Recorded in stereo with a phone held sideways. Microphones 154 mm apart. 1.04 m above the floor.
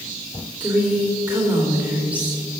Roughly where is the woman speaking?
Right.